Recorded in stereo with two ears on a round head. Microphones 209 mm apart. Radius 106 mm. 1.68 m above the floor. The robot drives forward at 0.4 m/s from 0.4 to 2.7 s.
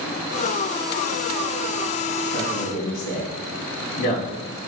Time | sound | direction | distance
2.3 | a man speaking | 80° left | 3 m